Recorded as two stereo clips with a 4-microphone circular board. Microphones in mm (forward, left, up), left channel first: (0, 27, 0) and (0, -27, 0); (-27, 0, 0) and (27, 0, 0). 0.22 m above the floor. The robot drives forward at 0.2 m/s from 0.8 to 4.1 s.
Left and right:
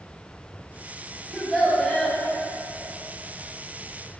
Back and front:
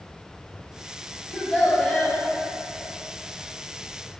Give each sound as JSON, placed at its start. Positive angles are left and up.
{"t": 1.3, "sound": "a child speaking", "azimuth_deg": 150, "distance_m": 0.8}